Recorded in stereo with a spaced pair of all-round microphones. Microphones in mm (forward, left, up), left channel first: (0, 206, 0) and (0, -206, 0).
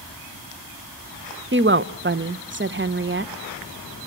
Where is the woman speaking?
30° right (ahead or behind), 0.7 m.